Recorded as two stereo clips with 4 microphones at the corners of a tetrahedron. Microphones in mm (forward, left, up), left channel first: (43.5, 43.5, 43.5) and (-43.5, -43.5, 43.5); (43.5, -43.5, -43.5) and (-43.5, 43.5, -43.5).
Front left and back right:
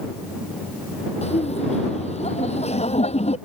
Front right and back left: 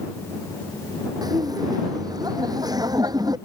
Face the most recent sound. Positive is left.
turn(degrees=75)